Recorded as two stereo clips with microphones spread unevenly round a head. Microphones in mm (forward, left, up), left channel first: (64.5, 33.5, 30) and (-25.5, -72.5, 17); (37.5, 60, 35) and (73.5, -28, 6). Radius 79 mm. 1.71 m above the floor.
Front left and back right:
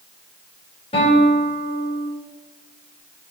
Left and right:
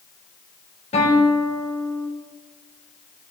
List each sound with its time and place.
0.9 s a guitar: 110° left, 4 m